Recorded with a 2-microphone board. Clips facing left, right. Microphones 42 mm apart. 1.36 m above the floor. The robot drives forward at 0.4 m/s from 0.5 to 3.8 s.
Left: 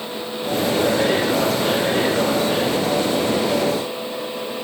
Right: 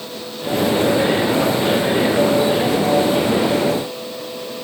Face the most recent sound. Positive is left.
No sound to turn to.